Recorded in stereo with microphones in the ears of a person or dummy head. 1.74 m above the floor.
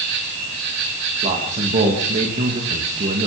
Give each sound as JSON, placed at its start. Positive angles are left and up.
{"t": 0.0, "sound": "an insect", "side_deg": -70, "distance_m": 4.5}
{"t": 1.2, "sound": "a man speaking", "side_deg": -40, "distance_m": 3.0}